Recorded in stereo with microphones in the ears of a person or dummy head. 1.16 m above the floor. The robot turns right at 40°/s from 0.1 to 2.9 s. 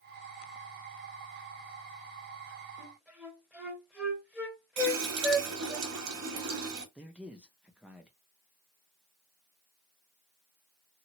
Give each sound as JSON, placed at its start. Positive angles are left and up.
{"t": 2.8, "sound": "a flute", "side_deg": -5, "distance_m": 1.7}
{"t": 4.8, "sound": "a running tap", "side_deg": -75, "distance_m": 1.3}
{"t": 7.0, "sound": "a man speaking", "side_deg": -5, "distance_m": 0.8}